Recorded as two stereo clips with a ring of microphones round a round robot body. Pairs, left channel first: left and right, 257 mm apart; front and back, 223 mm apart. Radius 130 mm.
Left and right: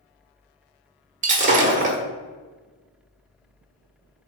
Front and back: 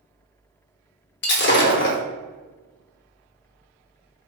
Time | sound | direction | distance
1.2 | breaking glass | 35° right | 0.8 m